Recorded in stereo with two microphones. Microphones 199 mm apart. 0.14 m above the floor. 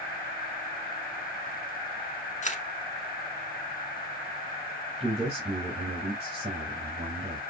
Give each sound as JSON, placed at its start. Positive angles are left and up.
{"t": 2.4, "sound": "a camera shutter", "side_deg": 40, "distance_m": 0.8}
{"t": 5.0, "sound": "a man speaking", "side_deg": -30, "distance_m": 1.8}